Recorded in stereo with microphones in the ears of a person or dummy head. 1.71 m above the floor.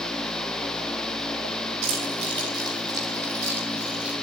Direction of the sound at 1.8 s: 40° right (ahead or behind).